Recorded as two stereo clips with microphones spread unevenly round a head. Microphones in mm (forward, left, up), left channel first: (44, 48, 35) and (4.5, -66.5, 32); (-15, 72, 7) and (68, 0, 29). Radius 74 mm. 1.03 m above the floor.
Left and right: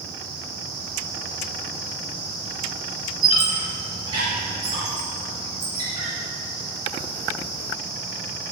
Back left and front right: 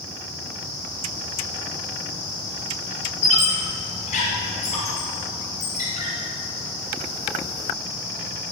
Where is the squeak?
170° right, 4 m.